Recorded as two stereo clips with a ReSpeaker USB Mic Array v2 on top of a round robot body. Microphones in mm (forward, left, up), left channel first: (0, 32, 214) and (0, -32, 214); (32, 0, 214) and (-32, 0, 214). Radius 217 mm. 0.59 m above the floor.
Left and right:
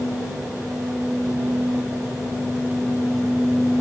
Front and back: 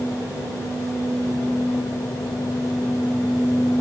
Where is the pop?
No pop in this recording.